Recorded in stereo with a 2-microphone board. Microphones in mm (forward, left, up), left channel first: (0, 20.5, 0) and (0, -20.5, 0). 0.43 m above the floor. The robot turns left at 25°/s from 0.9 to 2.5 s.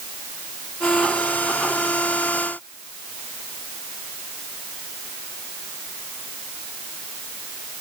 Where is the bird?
No bird in this recording.